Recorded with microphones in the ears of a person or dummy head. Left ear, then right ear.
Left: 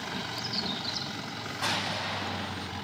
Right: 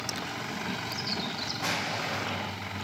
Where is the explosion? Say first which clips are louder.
Left 2 dB; 50° left (ahead or behind), 1.4 m.